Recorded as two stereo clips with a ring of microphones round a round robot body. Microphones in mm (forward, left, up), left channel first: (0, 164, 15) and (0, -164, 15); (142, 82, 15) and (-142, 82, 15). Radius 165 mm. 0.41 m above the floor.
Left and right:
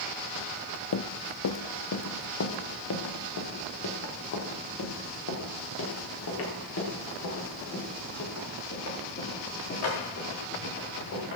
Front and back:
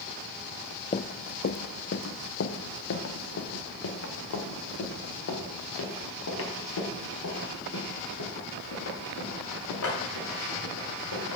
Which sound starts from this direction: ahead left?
Running footsteps, at 0.9 s.